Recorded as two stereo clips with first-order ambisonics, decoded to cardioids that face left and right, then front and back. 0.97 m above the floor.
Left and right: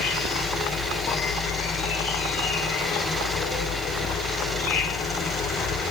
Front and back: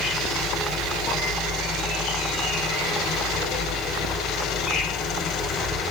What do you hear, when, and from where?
0.0 s an insect: 55° left, 1.9 m